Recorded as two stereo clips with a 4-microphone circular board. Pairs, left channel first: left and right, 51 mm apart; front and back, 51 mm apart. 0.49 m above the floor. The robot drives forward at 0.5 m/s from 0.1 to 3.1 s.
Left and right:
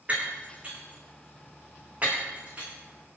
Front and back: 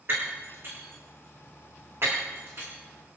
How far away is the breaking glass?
About 8 m.